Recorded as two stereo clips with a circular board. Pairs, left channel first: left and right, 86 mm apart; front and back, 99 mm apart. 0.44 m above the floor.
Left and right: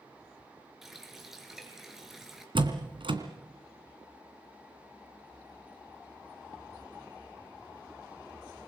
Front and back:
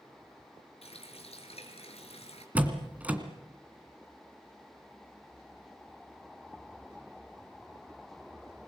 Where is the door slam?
105° right, 2.5 m.